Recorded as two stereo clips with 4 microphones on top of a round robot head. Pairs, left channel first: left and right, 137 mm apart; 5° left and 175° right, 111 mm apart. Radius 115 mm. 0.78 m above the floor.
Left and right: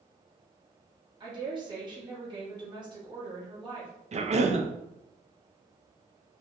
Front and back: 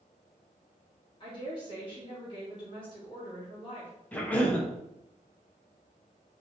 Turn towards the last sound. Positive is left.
turn(degrees=-70)